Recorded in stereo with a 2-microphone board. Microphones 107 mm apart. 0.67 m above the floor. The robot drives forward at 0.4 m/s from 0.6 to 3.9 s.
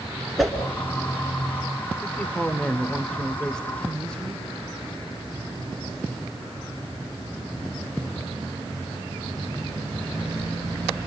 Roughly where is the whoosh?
Centre.